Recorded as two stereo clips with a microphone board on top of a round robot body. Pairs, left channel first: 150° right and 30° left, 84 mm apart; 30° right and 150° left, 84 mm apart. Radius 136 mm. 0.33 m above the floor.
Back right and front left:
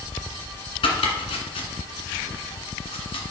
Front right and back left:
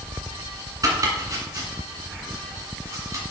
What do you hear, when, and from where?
0.8 s chopping: 160° right, 2 m